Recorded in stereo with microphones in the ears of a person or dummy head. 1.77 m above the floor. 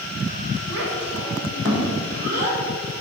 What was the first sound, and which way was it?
A child speaking, 70° right (ahead or behind).